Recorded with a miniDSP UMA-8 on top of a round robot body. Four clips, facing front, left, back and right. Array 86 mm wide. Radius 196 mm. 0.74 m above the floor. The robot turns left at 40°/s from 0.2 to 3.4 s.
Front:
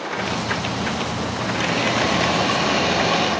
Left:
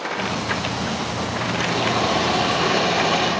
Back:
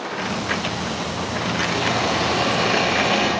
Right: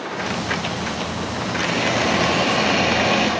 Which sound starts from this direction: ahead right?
A hiss, at 1.6 s.